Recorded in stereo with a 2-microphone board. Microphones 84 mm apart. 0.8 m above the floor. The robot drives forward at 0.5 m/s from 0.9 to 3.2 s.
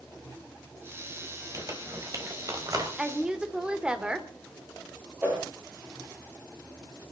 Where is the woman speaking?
15° right (ahead or behind), 2.5 m; by 4.3 s 10° right (ahead or behind), 2.5 m.